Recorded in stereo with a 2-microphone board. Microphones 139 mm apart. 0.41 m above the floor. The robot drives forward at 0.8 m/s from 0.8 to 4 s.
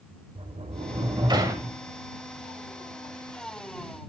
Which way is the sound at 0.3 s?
45° right (ahead or behind).